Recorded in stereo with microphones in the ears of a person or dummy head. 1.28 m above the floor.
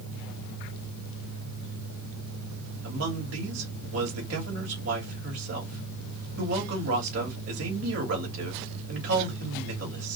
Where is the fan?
80° left, 1.8 m.